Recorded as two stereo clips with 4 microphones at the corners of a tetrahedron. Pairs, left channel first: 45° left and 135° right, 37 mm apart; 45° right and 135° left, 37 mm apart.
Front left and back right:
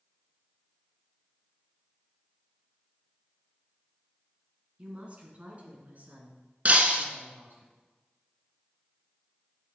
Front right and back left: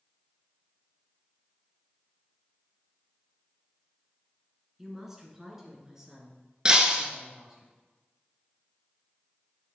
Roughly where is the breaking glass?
Behind.